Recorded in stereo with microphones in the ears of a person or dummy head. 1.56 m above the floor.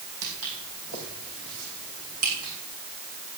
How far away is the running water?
No running water in this recording.